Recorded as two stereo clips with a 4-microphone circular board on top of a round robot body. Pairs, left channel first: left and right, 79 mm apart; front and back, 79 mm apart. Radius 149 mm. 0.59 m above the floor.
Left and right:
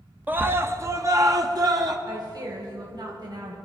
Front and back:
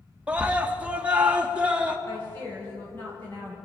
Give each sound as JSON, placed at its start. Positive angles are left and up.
{"t": 0.3, "sound": "a scream", "azimuth_deg": -125, "distance_m": 1.2}
{"t": 2.1, "sound": "a woman speaking", "azimuth_deg": -60, "distance_m": 3.0}